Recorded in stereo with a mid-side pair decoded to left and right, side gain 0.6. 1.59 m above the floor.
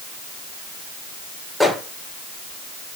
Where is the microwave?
5° left, 6 m.